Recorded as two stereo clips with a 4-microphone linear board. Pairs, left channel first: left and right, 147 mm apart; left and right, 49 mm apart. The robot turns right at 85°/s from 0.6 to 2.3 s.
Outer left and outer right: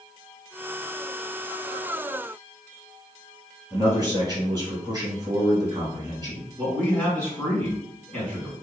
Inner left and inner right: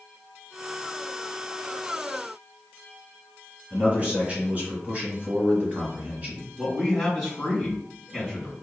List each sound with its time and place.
3.7 s a man speaking: 30° right (ahead or behind), 1.3 m
6.6 s a man speaking: 10° left (ahead or behind), 2.0 m